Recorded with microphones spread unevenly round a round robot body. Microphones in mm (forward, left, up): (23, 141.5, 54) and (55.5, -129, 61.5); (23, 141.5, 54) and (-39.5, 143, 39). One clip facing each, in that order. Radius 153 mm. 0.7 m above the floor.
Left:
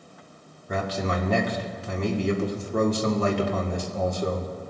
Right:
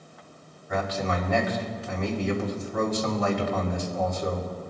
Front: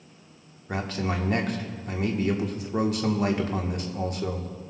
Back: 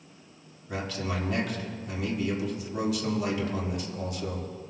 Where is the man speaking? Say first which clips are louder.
Left 1 dB, front 3 dB; 45° left, 1.9 m.